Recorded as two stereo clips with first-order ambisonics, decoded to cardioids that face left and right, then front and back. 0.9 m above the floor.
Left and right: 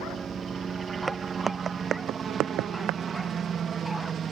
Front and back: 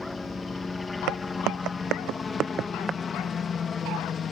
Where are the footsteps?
165° right; by 3.0 s 110° right.